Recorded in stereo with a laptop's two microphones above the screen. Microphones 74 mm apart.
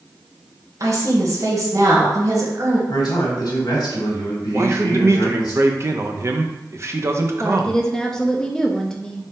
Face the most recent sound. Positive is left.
turn(degrees=5)  # may be behind; listen again after turning